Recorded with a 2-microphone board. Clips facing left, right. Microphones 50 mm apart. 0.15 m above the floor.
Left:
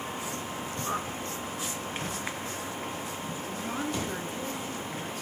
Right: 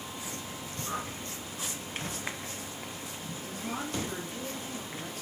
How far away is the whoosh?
About 2.5 m.